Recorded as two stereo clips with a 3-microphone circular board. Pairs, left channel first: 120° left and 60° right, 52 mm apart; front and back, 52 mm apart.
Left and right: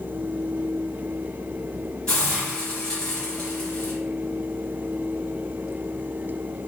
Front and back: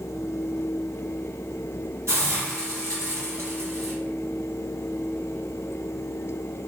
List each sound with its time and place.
2.1 s a hiss: 165° right, 1.6 m